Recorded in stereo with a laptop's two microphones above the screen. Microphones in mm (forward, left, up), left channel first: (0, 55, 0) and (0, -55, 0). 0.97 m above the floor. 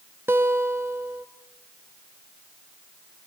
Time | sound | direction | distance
0.3 | a guitar | 20° right (ahead or behind) | 1.3 m